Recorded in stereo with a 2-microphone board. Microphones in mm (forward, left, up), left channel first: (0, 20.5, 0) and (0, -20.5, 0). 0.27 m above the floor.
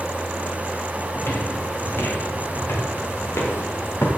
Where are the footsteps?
70° left (ahead or behind), 4 m; by 4.1 s 85° left, 4.5 m.